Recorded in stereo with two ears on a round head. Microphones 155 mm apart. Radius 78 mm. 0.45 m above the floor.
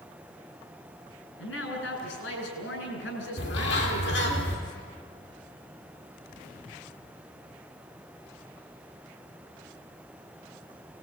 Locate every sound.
1.4 s a man speaking: 80° left, 9 m
3.4 s a bird: 75° left (ahead or behind), 4 m